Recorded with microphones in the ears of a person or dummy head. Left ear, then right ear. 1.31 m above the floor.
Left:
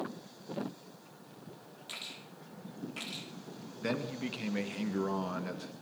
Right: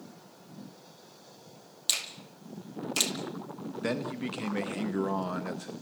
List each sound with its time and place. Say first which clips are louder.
1.9 s a finger snap: right 11 dB; 85° right, 2.5 m
3.8 s a man speaking: right 3 dB; 20° right (ahead or behind), 1.6 m